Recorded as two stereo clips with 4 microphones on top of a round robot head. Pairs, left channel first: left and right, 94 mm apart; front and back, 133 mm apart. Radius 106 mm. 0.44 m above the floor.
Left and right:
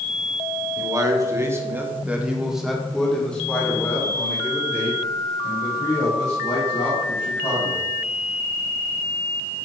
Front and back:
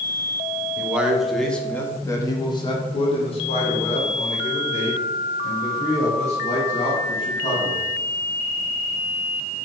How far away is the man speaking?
About 1.3 m.